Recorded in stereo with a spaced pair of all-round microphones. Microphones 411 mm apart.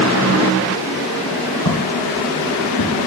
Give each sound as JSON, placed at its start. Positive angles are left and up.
{"t": 1.6, "sound": "footsteps", "side_deg": 55, "distance_m": 6.5}